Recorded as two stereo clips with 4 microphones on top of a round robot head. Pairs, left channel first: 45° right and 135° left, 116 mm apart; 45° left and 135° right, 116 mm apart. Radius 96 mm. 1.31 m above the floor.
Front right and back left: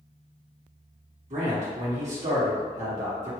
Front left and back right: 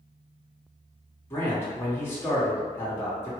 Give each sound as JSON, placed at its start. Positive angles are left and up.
{"t": 1.3, "sound": "a man speaking", "azimuth_deg": 120, "distance_m": 1.5}